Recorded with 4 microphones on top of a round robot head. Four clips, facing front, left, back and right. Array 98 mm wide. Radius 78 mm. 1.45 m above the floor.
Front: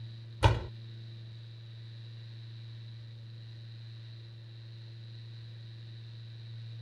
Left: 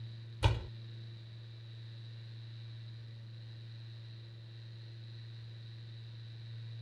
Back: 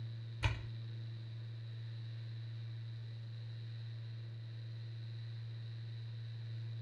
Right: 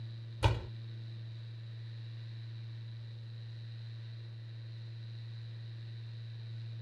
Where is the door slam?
5° right.